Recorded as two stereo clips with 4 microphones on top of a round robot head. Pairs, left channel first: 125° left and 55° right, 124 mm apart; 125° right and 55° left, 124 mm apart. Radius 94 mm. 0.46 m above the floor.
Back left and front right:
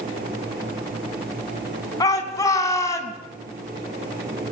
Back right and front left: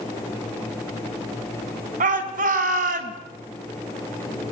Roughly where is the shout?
Ahead left.